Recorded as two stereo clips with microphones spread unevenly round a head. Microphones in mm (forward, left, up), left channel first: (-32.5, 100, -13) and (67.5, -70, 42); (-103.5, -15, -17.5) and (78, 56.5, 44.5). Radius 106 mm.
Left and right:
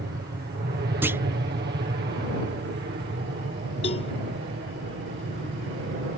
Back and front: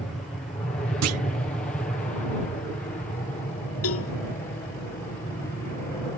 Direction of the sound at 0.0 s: 95° right.